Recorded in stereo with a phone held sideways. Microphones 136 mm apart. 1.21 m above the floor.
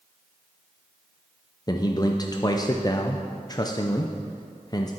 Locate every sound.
1.7 s a man speaking: 30° left (ahead or behind), 0.5 m